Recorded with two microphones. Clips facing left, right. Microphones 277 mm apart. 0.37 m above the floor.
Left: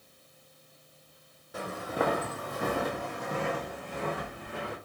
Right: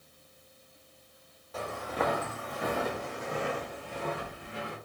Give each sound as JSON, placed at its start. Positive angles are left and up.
{"t": 1.5, "sound": "footsteps", "side_deg": 15, "distance_m": 0.8}